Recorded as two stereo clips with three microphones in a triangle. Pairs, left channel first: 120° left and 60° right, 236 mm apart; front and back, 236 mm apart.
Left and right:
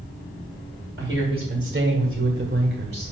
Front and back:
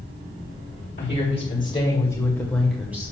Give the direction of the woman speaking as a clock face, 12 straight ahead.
1 o'clock.